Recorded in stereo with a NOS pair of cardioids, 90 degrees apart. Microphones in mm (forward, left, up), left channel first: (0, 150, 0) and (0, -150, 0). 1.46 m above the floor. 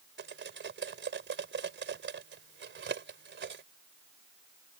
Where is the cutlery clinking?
40° right.